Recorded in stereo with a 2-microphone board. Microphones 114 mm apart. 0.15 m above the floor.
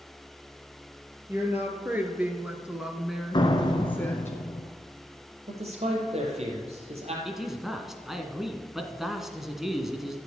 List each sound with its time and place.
1.3 s a woman speaking: 20° right (ahead or behind), 3 m; by 4.3 s 20° left (ahead or behind), 1.4 m
3.3 s a door slam: 45° left (ahead or behind), 1.3 m
5.5 s a man speaking: 70° right (ahead or behind), 4 m
7.2 s a man speaking: 5° right (ahead or behind), 1.6 m